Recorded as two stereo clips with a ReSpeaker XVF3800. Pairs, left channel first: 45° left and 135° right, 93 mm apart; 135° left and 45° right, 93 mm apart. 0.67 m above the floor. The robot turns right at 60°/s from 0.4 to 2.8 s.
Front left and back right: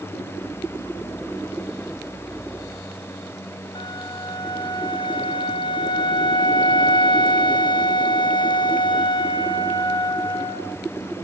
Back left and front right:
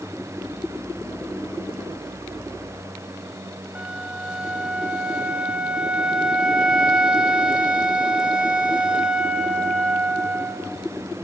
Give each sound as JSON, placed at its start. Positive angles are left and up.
{"t": 3.8, "sound": "a flute", "azimuth_deg": 35, "distance_m": 0.7}